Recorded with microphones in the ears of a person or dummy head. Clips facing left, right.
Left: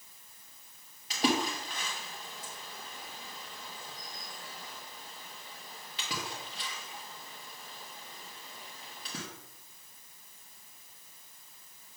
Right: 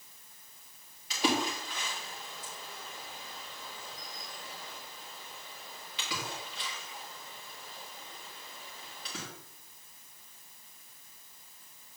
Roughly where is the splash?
Left.